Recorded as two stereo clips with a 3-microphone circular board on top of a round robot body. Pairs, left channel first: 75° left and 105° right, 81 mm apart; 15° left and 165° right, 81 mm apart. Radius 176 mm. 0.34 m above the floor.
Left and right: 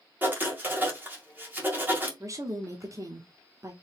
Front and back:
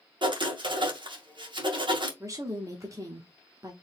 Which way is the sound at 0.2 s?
170° right.